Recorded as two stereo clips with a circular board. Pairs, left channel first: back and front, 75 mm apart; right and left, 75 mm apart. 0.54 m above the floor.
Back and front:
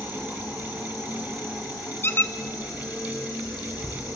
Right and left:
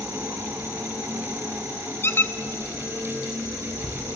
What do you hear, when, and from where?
0.0 s an insect: 145° left, 5.5 m
2.0 s a squeak: 135° right, 0.6 m